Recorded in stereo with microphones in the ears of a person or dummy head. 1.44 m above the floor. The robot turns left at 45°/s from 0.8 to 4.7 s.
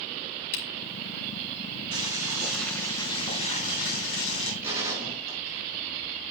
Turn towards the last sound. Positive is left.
turn(degrees=-15)  # may be behind; listen again after turning